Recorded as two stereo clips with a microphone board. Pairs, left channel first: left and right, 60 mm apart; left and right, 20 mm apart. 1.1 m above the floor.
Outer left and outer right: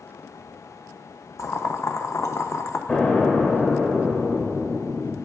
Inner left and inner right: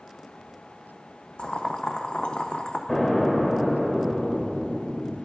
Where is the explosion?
25° left (ahead or behind), 2 m.